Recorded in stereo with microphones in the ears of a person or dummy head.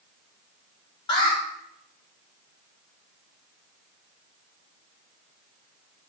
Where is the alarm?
25° left (ahead or behind), 2 m.